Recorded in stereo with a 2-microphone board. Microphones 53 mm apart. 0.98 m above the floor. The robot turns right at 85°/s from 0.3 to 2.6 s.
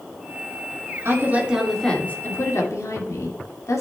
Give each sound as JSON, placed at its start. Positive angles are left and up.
{"t": 1.1, "sound": "a woman speaking", "azimuth_deg": -55, "distance_m": 2.0}